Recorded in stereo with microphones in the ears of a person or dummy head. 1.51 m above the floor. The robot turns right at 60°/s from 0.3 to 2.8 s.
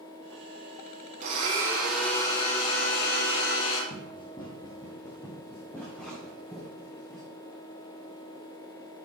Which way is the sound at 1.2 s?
40° right.